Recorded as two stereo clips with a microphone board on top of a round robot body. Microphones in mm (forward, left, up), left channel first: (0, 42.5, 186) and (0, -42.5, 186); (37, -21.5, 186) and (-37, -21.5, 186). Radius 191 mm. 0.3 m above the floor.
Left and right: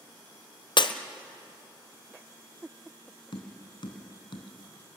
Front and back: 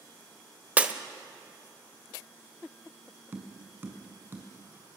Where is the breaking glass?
110° left, 1.1 m.